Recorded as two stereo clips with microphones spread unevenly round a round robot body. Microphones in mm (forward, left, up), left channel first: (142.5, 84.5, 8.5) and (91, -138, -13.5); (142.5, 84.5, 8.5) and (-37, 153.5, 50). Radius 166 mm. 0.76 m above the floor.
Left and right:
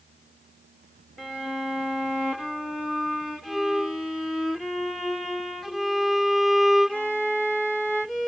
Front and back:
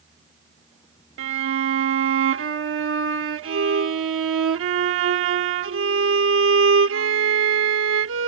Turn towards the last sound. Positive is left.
turn(degrees=165)